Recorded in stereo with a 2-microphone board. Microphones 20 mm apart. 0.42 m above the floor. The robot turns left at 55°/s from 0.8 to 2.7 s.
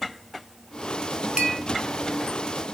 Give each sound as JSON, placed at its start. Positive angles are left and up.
{"t": 1.4, "sound": "a clink", "side_deg": -55, "distance_m": 1.3}